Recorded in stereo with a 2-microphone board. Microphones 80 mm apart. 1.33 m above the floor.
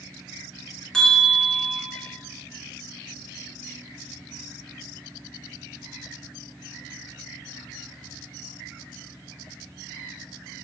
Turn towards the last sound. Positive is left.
turn(degrees=5)  # may be behind; listen again after turning